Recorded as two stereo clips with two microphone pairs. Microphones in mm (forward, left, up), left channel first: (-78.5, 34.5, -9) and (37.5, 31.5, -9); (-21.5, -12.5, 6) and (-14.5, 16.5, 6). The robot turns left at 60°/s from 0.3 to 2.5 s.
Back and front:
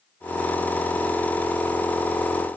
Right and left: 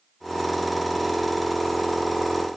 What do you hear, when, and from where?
Only background noise.